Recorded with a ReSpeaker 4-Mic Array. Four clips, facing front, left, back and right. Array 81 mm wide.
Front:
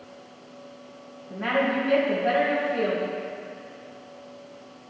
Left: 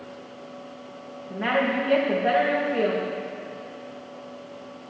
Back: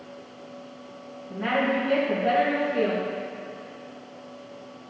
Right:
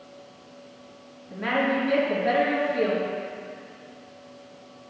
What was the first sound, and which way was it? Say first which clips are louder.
A woman speaking: left 1 dB, even; 85° left.